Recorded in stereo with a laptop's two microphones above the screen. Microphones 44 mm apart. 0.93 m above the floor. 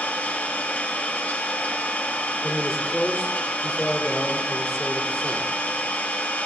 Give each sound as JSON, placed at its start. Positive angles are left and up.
{"t": 0.0, "sound": "an engine running", "side_deg": 35, "distance_m": 3.5}
{"t": 2.4, "sound": "a man speaking", "side_deg": 10, "distance_m": 2.5}